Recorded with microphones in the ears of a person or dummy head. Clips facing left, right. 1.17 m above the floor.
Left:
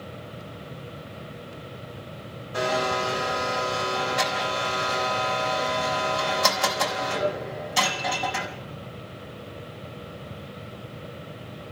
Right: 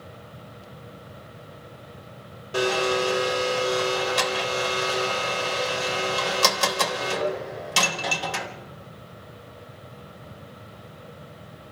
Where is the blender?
85° right, 3.5 m.